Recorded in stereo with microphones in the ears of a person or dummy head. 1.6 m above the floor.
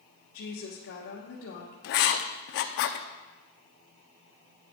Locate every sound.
0.3 s a woman speaking: 70° left (ahead or behind), 1.4 m
1.8 s writing: 55° left (ahead or behind), 0.5 m